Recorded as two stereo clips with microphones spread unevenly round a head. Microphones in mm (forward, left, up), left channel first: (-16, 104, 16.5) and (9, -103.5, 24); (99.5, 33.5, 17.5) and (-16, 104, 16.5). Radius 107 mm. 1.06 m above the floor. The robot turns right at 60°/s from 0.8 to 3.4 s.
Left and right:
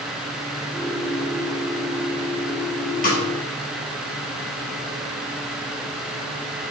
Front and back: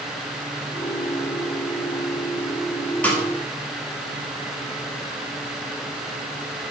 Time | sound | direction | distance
3.0 | a snare drum | 45° left | 3 m